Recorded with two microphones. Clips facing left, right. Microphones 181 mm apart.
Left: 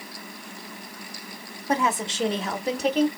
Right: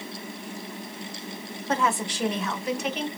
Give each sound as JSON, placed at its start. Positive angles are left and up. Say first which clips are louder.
{"t": 1.7, "sound": "a woman speaking", "louder": "left 1 dB", "side_deg": 15, "distance_m": 0.9}